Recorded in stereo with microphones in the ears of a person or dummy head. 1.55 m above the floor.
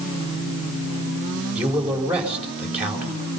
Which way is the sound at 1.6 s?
5° right (ahead or behind).